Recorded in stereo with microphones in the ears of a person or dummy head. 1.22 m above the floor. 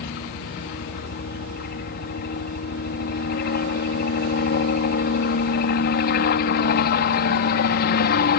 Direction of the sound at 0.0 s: 45° left (ahead or behind).